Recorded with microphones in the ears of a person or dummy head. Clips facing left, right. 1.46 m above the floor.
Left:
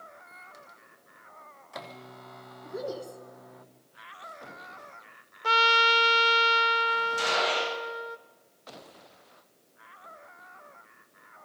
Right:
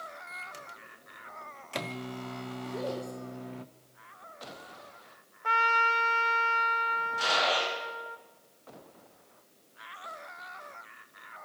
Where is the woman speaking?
20° left (ahead or behind), 3 m.